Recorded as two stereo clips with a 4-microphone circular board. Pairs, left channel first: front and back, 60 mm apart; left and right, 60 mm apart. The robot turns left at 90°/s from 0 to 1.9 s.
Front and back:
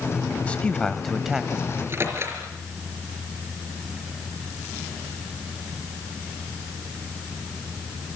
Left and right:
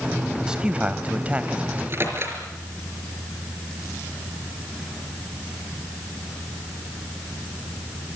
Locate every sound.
0.3 s a man speaking: 20° right, 1.1 m; by 1.6 s 135° right, 1.1 m
1.7 s a microwave: 120° right, 4.5 m; by 2.4 s 140° right, 4.5 m